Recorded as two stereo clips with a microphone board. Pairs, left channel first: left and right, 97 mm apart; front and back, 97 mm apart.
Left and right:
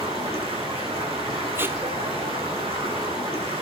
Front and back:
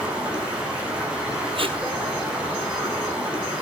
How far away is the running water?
About 7.5 m.